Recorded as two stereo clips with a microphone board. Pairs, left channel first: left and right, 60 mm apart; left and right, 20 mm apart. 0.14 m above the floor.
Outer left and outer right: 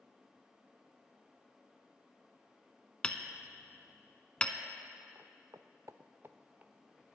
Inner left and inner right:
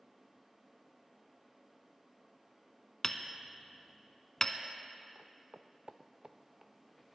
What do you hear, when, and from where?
3.0 s hammering: 15° left (ahead or behind), 0.9 m
5.2 s footsteps: 45° right (ahead or behind), 0.9 m; by 6.7 s 25° right (ahead or behind), 1.3 m